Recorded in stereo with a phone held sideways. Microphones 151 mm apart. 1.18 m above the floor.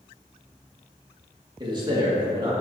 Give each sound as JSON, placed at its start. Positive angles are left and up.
{"t": 1.6, "sound": "a man speaking", "side_deg": -30, "distance_m": 1.8}